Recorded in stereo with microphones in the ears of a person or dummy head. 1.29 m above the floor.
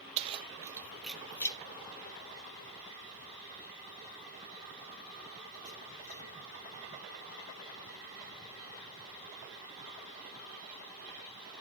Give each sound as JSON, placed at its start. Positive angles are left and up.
{"t": 0.2, "sound": "keys jangling", "side_deg": -30, "distance_m": 1.1}